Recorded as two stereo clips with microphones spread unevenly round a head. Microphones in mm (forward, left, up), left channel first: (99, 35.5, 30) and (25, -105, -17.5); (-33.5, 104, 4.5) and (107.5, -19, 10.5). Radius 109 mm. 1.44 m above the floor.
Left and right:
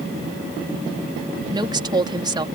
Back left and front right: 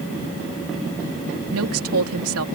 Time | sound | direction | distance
1.5 | a woman speaking | 50° right | ?